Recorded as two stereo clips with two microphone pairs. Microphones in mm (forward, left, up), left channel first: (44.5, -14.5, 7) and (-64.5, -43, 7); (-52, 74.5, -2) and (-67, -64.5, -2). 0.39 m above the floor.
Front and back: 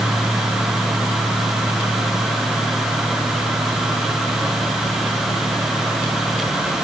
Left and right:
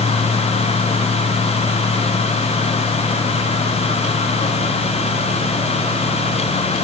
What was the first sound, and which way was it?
Only background noise.